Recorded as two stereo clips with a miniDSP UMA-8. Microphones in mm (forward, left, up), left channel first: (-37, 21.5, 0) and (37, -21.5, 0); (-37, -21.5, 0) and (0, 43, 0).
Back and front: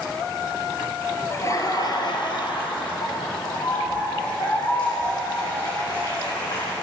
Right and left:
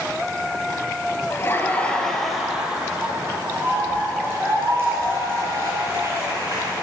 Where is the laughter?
160° right, 1.8 m; by 6.7 s 110° left, 8.5 m.